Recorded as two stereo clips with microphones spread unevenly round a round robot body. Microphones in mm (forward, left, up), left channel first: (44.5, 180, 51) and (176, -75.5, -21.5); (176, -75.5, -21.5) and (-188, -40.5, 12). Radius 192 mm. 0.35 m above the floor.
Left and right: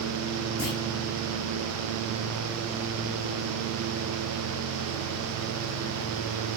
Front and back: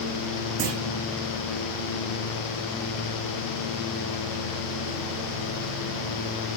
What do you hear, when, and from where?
0.6 s a clunk: 175° left, 8 m